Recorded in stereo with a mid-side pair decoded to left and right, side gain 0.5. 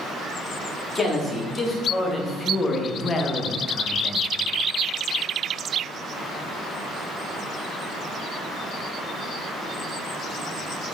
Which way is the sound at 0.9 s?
30° left.